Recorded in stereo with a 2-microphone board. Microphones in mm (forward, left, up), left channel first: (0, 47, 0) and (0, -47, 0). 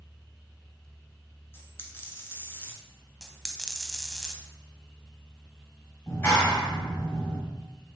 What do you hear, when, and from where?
1.5 s a dropped coin: 25° left (ahead or behind), 0.9 m
3.2 s a dropped coin: centre (ahead or behind), 0.5 m
6.1 s a clap: 25° left (ahead or behind), 1.6 m